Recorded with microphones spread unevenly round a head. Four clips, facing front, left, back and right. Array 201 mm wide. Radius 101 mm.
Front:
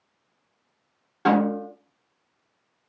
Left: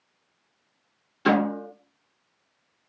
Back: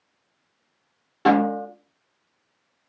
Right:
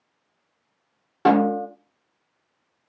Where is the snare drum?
100° right, 1.8 m.